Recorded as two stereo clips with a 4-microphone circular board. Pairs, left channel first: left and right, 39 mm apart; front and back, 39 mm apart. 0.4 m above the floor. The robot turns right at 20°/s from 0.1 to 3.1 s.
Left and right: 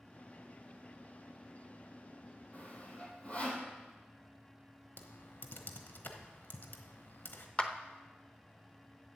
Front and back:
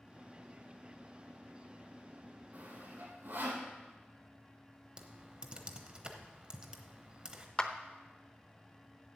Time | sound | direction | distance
2.5 | sawing | 135° left | 2 m
5.0 | typing on a keyboard | 120° left | 1.0 m
7.6 | a clap | 50° left | 0.7 m